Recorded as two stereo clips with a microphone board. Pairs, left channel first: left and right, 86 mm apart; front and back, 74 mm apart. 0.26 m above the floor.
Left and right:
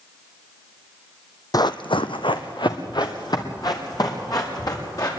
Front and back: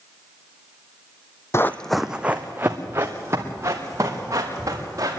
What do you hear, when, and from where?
1.5 s running footsteps: 50° left, 0.7 m; by 5.1 s 135° left, 5 m